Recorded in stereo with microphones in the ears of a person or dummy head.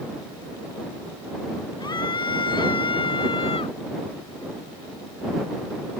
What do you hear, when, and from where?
1.8 s a scream: 20° left (ahead or behind); by 3.8 s 25° left (ahead or behind)